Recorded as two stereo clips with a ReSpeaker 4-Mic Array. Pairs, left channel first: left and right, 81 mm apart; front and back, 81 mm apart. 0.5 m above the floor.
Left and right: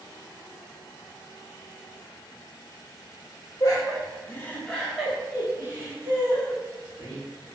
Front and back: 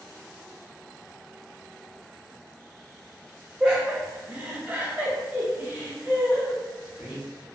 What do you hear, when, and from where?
3.6 s laughter: 100° left, 0.9 m; by 7.2 s 105° right, 1.4 m